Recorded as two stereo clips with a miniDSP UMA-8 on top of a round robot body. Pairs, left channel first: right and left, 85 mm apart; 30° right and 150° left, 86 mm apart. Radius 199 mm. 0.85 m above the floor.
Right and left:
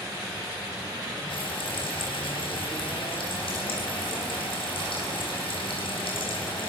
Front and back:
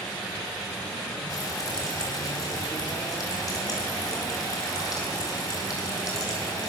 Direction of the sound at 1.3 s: 80° right.